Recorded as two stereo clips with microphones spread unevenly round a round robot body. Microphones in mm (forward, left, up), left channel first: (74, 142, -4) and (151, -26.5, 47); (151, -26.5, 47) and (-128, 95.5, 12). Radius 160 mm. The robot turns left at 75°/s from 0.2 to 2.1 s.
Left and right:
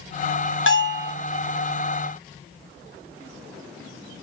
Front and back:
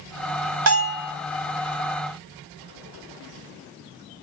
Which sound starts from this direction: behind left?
A bell, at 0.7 s.